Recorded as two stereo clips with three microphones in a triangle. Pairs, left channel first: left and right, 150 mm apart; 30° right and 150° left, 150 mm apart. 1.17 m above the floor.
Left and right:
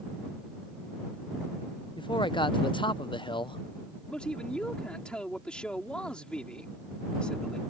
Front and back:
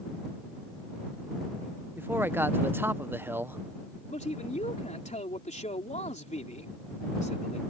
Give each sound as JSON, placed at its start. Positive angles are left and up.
{"t": 2.0, "sound": "a man speaking", "azimuth_deg": 90}
{"t": 4.1, "sound": "a man speaking", "azimuth_deg": 5}